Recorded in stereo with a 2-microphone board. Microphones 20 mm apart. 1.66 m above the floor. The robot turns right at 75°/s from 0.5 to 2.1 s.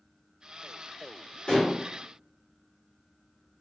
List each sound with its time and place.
1.5 s dishes clattering: 55° left (ahead or behind), 1.5 m; by 1.8 s 40° left (ahead or behind), 1.5 m